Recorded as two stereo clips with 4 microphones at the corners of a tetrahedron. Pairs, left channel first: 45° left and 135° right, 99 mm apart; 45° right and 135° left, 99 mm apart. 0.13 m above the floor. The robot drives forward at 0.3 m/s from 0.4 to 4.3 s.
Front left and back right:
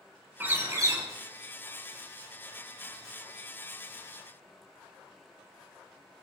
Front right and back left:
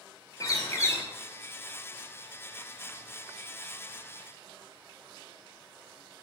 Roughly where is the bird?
Right.